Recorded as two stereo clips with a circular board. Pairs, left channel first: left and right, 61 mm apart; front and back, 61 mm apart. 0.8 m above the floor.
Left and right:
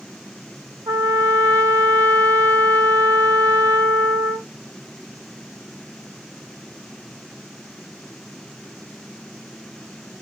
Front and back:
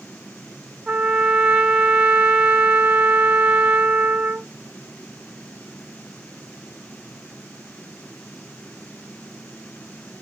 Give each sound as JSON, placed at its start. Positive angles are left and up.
{"t": 0.9, "sound": "a trumpet", "azimuth_deg": -105, "distance_m": 0.9}